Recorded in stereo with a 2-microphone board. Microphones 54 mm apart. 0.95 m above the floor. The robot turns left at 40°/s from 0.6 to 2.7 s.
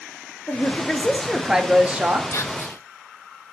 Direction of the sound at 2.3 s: 55° left (ahead or behind).